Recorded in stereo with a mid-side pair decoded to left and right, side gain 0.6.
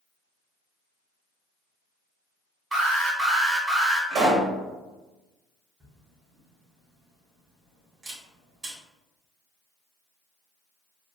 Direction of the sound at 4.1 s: 60° right.